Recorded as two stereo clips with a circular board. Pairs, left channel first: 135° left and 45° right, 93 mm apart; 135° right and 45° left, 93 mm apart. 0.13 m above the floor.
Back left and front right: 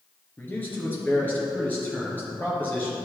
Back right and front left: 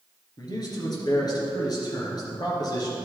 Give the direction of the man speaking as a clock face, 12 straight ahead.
5 o'clock.